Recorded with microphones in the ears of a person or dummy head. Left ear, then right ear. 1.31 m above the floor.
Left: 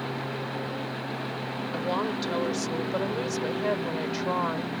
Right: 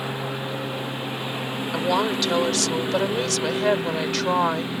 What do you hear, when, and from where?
0.0 s a lawn mower: 75° right (ahead or behind)
1.7 s a woman speaking: 25° right (ahead or behind)